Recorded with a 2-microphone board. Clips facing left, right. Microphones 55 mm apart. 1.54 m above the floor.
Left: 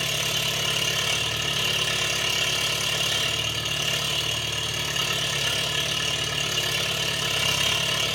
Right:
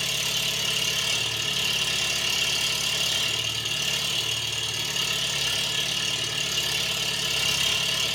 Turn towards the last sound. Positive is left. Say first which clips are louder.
# left 2 dB
turn(degrees=40)  # may be behind; listen again after turning